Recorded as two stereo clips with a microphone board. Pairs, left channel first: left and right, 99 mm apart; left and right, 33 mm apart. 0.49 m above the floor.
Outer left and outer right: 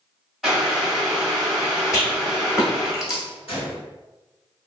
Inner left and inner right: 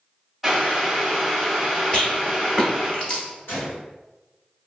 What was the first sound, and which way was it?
Boiling, centre (ahead or behind).